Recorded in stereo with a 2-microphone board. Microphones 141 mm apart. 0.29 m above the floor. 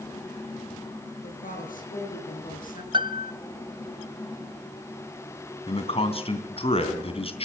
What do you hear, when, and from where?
1.2 s a woman speaking: 75° left (ahead or behind), 6 m
2.9 s a piano: 35° right (ahead or behind), 0.6 m
5.7 s a man speaking: 45° left (ahead or behind), 2.5 m